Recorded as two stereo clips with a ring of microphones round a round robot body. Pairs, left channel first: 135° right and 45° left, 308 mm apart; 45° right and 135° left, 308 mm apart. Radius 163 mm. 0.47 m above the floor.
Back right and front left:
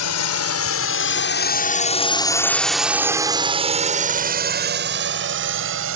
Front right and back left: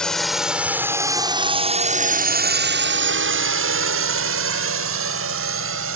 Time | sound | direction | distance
0.0 | a drone | 130° right | ?